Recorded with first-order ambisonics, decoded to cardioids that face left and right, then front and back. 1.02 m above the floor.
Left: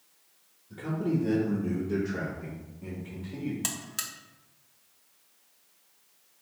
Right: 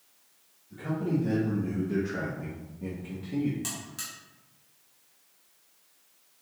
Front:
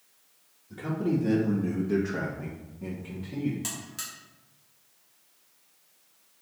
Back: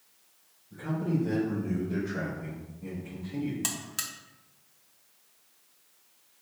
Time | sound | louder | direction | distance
0.7 | a man speaking | even, front 3 dB | 30° left | 1.3 m
3.6 | a buzzer | left 3 dB, back 3 dB | 130° left | 0.7 m